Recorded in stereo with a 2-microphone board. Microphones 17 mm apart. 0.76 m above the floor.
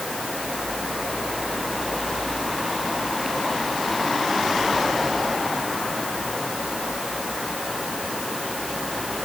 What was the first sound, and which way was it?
Only background noise.